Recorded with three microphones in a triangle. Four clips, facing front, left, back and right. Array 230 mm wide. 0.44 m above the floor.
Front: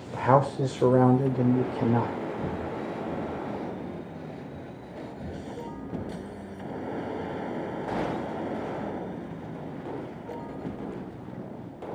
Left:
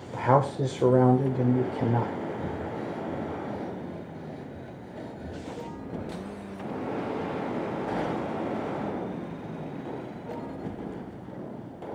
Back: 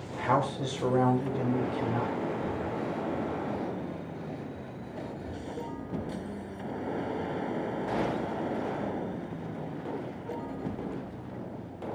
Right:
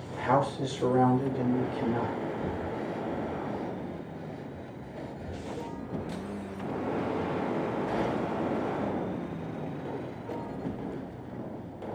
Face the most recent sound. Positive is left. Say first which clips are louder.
# even, even
turn(degrees=5)